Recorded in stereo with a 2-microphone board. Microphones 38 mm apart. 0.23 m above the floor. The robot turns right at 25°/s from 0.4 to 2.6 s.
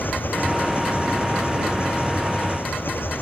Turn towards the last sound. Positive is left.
turn(degrees=115)